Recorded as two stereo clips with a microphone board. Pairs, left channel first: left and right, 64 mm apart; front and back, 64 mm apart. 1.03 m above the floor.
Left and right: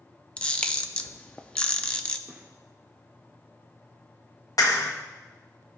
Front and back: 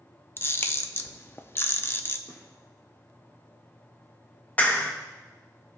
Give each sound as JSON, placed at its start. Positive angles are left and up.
{"t": 0.4, "sound": "a camera shutter", "azimuth_deg": 25, "distance_m": 0.5}
{"t": 2.3, "sound": "a gunshot", "azimuth_deg": -20, "distance_m": 1.7}
{"t": 4.6, "sound": "a clap", "azimuth_deg": 65, "distance_m": 1.0}